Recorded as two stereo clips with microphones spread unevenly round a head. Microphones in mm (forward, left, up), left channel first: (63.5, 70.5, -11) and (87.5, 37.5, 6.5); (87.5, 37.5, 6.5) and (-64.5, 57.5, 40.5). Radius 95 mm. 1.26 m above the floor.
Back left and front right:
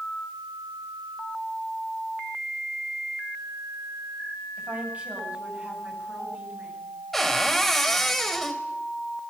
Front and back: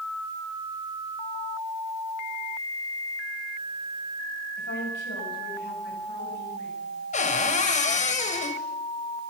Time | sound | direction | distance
4.6 | a woman speaking | straight ahead | 8 m
7.1 | a cupboard door | 35° left | 3.5 m